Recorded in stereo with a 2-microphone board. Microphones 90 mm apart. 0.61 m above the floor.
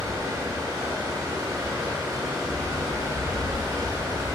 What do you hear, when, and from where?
0.0 s running water: 35° right (ahead or behind), 0.8 m